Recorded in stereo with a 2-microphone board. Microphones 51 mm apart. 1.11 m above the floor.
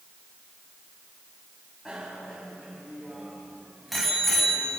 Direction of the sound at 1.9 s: 10° right (ahead or behind).